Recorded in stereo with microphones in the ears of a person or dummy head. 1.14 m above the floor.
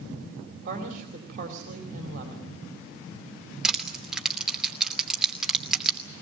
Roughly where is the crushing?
Centre.